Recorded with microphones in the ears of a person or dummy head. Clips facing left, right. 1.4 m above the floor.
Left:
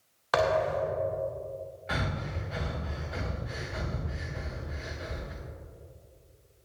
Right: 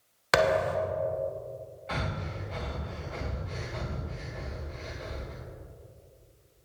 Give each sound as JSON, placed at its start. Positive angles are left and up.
{"t": 0.3, "sound": "a thud", "side_deg": -30, "distance_m": 0.9}
{"t": 1.9, "sound": "breathing", "side_deg": 15, "distance_m": 1.7}